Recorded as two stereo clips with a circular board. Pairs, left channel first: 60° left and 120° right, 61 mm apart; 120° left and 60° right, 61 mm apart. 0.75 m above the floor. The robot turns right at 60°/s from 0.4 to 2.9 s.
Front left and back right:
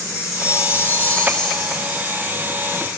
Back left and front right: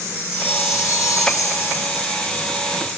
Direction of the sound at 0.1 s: 85° left.